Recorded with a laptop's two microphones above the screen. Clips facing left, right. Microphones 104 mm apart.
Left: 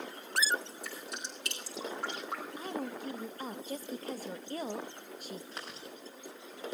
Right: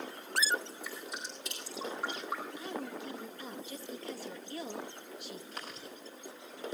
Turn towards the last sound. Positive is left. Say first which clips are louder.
# even
turn(degrees=35)  # may be behind; listen again after turning